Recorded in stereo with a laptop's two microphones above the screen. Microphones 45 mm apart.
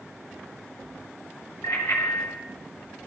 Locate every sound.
1.6 s a bicycle bell: 85° left, 5.5 m